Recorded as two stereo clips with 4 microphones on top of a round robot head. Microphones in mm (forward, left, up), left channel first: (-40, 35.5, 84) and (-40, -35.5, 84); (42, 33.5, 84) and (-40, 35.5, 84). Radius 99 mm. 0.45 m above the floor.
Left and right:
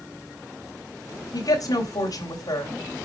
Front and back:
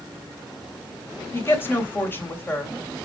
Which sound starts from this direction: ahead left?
A woman speaking, at 1.3 s.